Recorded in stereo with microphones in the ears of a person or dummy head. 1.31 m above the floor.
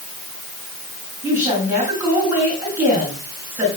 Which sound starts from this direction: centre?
A woman speaking, at 1.2 s.